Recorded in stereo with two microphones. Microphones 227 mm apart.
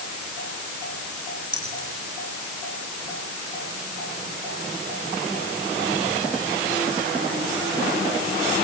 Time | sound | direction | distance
1.5 | keys jangling | 20° right (ahead or behind) | 5.5 m